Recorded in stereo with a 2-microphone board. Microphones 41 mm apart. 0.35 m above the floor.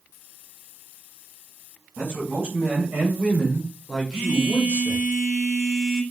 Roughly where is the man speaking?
Right.